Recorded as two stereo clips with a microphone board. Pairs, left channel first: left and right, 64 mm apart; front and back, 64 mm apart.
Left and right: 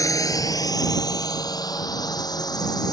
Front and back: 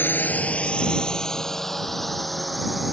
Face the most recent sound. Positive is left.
turn(degrees=95)